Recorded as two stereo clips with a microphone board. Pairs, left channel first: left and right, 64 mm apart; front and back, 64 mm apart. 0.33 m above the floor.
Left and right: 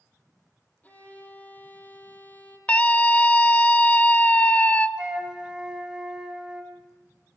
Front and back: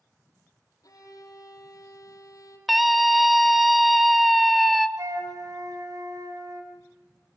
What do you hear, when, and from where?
0.8 s a violin: 25° left, 4.5 m
2.7 s a scream: 90° left, 1.1 m
5.0 s a flute: 165° right, 3 m